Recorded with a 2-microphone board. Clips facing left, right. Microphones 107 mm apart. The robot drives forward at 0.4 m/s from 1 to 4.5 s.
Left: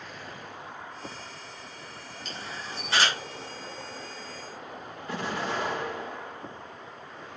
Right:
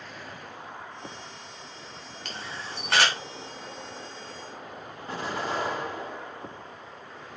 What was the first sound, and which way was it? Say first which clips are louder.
A camera shutter: right 1 dB; 80° right.